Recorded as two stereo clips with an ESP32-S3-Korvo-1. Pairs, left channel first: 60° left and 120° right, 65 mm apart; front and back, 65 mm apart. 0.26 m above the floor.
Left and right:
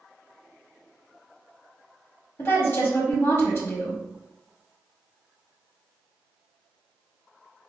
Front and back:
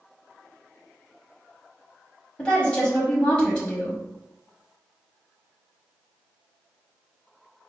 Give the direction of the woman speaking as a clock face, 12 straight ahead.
10 o'clock.